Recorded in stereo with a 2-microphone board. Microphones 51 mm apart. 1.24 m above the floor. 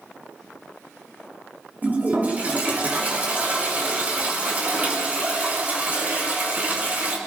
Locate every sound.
1.8 s a toilet flushing: 35° right (ahead or behind), 5 m